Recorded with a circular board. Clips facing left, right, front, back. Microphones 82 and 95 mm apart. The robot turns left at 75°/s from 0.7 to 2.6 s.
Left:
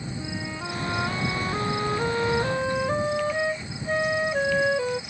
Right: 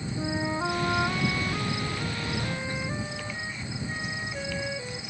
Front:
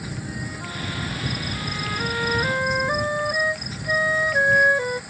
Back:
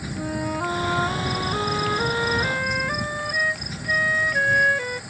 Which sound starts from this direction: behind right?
A flute, at 0.1 s.